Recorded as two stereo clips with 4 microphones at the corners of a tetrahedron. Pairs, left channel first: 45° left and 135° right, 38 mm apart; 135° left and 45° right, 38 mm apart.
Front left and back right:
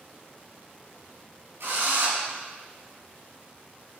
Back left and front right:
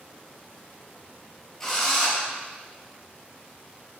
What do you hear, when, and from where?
1.6 s a drill: 145° right, 8 m